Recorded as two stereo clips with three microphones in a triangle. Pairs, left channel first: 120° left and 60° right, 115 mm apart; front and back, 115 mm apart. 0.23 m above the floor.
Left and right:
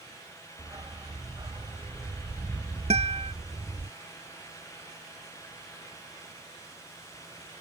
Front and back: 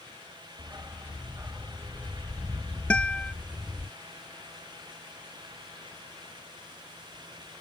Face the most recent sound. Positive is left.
turn(degrees=-80)